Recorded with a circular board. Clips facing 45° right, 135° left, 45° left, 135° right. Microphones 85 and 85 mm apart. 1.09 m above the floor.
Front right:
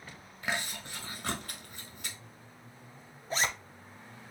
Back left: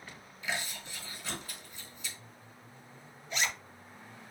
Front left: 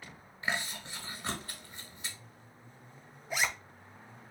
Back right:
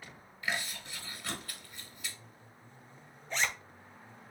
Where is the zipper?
30° right, 0.5 m.